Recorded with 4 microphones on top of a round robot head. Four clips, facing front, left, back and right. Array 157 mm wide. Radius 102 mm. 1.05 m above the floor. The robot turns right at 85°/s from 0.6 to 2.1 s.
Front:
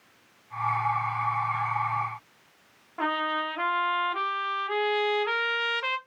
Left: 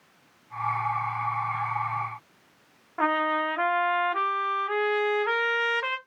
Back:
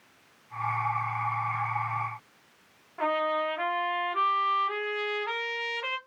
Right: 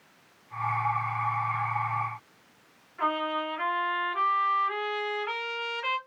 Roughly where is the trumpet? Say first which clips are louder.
Left 4 dB, back 1 dB; left.